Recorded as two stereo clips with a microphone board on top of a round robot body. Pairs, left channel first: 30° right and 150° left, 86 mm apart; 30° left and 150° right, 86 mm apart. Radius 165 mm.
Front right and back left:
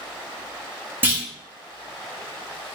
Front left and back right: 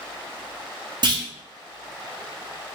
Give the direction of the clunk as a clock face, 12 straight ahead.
5 o'clock.